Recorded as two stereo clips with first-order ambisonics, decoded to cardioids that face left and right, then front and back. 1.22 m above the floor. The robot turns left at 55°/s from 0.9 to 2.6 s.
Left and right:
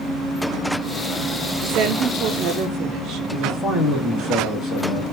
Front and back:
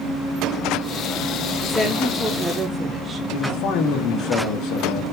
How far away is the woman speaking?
About 0.5 m.